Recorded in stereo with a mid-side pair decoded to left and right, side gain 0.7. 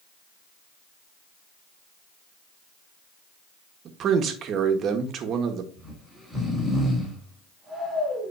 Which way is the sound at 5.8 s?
Straight ahead.